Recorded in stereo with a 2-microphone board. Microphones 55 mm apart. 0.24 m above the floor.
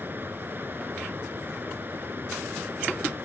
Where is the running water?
45° right (ahead or behind).